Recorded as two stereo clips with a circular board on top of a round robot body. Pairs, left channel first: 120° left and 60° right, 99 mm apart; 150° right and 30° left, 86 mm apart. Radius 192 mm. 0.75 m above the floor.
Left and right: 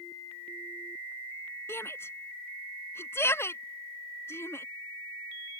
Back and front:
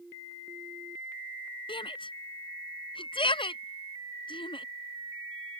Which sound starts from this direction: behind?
A shout, at 1.7 s.